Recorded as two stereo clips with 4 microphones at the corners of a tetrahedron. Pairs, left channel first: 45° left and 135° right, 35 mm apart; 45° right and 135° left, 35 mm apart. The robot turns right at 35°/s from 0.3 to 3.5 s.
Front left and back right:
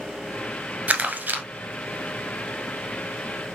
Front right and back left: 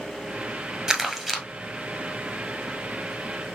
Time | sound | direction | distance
0.9 | crumpling | 165° right | 1.3 m